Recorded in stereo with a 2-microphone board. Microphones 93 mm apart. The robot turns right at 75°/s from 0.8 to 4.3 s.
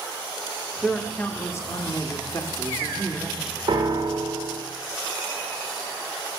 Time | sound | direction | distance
0.8 | a man speaking | 5° right | 0.9 m
3.7 | a piano | 100° right | 1.7 m